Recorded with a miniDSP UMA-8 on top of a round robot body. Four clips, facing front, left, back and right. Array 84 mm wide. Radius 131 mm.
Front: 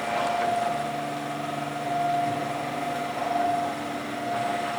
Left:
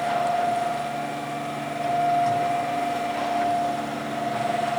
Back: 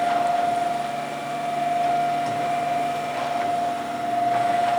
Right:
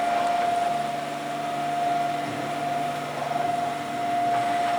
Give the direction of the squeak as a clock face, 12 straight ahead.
No squeak in this recording.